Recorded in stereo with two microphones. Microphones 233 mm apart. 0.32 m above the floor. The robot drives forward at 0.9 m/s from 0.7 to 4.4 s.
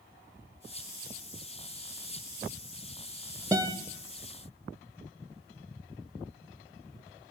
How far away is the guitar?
About 1.2 m.